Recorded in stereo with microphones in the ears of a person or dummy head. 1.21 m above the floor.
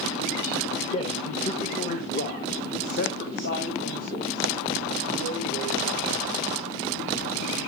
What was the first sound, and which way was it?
A man speaking, 35° left (ahead or behind).